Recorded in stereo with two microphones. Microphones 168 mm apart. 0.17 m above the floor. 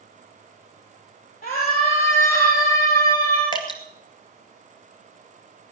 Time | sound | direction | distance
1.4 | a scream | 75° left (ahead or behind) | 3.5 m
3.5 | dripping | 25° left (ahead or behind) | 2 m